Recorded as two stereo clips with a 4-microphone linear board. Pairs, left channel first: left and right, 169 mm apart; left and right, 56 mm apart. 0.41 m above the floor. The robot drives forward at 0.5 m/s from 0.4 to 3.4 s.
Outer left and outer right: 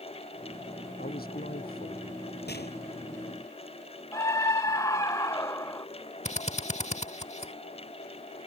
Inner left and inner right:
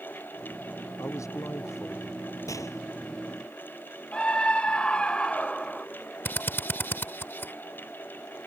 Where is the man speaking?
70° left (ahead or behind); by 2.3 s 65° left (ahead or behind).